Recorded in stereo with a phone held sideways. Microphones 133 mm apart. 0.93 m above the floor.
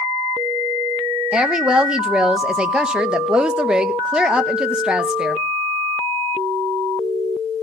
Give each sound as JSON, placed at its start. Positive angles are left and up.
{"t": 1.3, "sound": "a woman speaking", "side_deg": -5, "distance_m": 1.0}